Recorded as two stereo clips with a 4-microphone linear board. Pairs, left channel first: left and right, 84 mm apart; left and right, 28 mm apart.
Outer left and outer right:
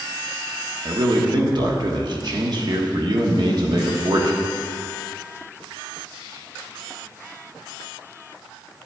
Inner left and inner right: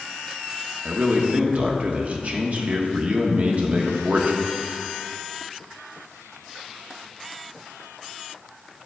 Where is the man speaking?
55° right (ahead or behind), 1.2 m.